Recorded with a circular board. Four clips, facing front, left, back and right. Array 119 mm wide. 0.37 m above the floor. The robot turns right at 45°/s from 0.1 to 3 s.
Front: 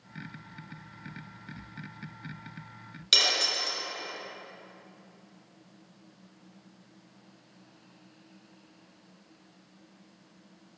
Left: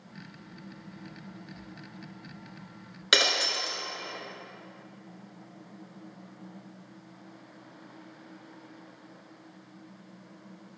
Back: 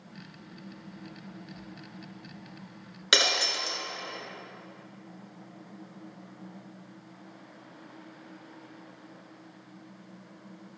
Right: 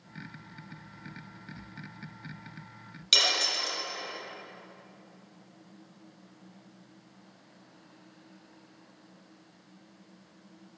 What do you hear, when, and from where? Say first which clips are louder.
3.1 s breaking glass: left 4 dB, back 3 dB; 130° left, 1.5 m